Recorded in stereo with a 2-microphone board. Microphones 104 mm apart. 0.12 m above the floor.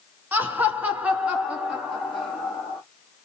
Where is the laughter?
20° right (ahead or behind), 1.1 m; by 2.8 s centre (ahead or behind), 2 m.